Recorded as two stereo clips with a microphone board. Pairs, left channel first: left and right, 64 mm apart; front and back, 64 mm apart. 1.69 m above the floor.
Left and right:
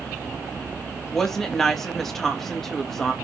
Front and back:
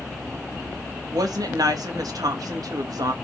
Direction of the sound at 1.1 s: 175° left.